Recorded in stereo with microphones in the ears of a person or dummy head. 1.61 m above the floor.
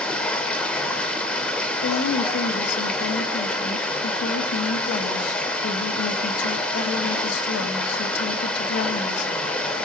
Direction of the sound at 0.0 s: 5° left (ahead or behind).